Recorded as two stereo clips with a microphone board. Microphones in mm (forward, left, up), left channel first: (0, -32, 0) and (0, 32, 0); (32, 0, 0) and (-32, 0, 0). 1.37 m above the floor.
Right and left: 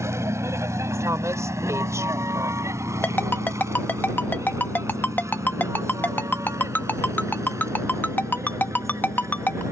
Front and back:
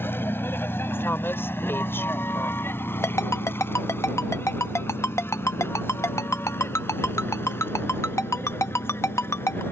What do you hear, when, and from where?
0.0 s a vehicle: 55° left
1.0 s a woman speaking: 55° left
3.0 s a ringtone: 35° right